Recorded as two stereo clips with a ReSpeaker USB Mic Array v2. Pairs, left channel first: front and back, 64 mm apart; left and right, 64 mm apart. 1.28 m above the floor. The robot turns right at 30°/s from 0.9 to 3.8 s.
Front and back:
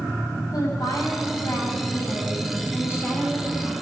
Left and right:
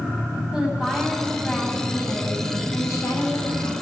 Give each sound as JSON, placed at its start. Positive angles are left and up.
{"t": 0.5, "sound": "a woman speaking", "azimuth_deg": -10, "distance_m": 9.5}